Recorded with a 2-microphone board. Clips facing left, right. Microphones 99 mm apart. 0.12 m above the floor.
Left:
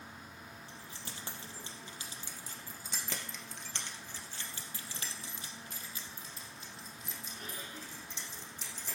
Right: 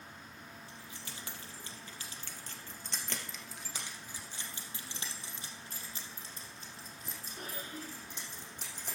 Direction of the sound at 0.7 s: 40° left (ahead or behind).